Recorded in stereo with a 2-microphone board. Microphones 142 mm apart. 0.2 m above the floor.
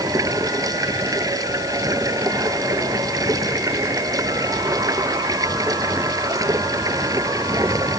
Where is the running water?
25° right (ahead or behind).